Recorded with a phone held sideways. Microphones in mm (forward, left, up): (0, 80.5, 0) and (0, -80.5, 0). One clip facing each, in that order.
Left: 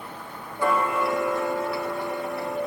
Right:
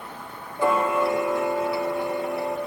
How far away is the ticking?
About 1.0 m.